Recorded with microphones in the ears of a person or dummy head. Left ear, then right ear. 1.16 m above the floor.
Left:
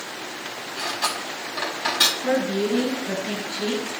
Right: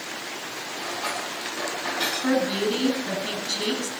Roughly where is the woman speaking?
Right.